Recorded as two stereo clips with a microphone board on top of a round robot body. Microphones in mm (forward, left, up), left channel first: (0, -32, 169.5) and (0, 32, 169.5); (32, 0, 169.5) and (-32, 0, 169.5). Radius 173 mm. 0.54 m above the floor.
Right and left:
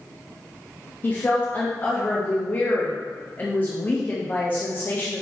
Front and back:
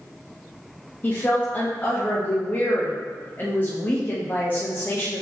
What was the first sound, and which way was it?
A woman speaking, 45° right.